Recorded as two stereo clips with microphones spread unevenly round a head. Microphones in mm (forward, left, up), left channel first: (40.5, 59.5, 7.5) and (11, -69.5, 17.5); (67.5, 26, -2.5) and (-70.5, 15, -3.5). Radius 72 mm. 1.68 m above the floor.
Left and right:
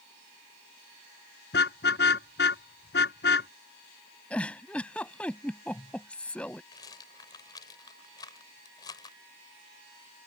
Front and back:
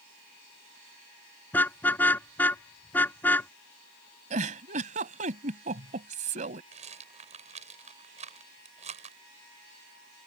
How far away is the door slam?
No door slam in this recording.